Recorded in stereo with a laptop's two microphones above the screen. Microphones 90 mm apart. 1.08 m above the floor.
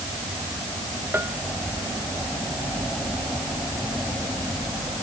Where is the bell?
25° right (ahead or behind).